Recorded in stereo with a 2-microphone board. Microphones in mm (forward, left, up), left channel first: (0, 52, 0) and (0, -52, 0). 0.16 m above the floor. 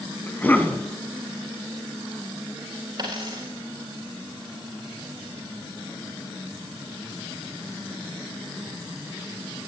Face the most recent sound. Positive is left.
turn(degrees=-40)  # may be behind; listen again after turning